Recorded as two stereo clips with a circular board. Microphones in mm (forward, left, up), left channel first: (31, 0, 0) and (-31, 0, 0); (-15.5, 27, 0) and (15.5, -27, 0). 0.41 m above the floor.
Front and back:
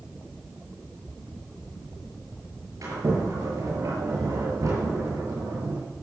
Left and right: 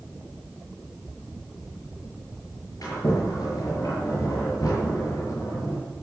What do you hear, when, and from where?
2.8 s a sliding door: 145° left, 6.5 m